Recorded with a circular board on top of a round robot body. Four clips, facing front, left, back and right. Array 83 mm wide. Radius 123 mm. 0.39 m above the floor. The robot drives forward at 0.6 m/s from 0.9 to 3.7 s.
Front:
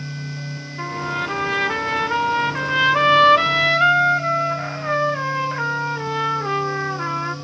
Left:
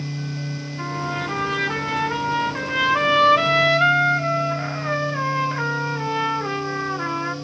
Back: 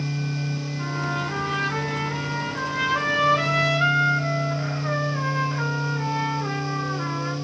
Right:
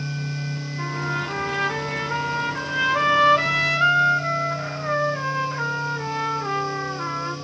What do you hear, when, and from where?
0.8 s a trumpet: 15° left, 2.5 m; by 7.3 s 45° left, 1.4 m